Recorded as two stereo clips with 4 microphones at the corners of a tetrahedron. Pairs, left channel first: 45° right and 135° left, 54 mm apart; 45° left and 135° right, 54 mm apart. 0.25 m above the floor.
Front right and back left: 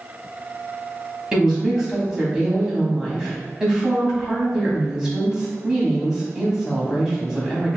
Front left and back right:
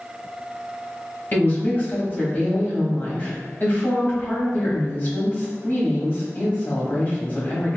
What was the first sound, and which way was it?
A woman speaking, 60° left.